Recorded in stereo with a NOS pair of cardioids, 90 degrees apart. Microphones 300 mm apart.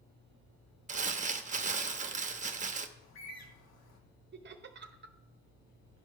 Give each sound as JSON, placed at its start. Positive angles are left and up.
{"t": 0.9, "sound": "crumpling", "azimuth_deg": -25, "distance_m": 0.8}
{"t": 3.0, "sound": "a bird", "azimuth_deg": 60, "distance_m": 1.4}
{"t": 4.3, "sound": "laughter", "azimuth_deg": -35, "distance_m": 0.8}